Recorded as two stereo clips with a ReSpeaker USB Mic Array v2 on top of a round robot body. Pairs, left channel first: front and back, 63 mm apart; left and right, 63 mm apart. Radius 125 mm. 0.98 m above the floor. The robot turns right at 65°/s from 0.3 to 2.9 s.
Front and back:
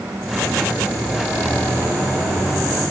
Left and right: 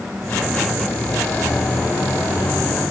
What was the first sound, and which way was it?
Only background noise.